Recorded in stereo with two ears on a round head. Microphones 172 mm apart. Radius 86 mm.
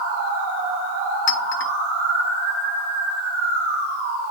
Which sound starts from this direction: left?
A clink, at 1.3 s.